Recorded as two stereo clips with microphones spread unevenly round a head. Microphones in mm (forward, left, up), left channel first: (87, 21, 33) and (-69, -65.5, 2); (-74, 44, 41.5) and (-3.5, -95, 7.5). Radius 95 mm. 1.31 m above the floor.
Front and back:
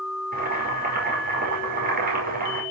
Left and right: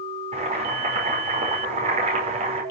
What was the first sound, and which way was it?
Boiling, 110° right.